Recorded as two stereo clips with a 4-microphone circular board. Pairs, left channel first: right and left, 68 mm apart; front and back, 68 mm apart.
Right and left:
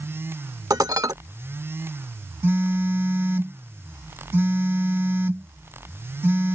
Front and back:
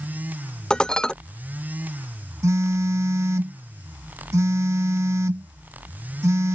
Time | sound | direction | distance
0.7 | dishes clattering | 80° left | ?
2.4 | a phone buzzing | 145° left | ?